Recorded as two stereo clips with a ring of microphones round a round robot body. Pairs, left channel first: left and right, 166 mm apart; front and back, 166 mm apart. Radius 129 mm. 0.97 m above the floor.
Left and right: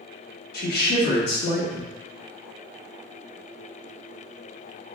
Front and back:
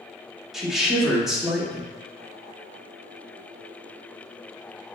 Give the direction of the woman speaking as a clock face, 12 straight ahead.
9 o'clock.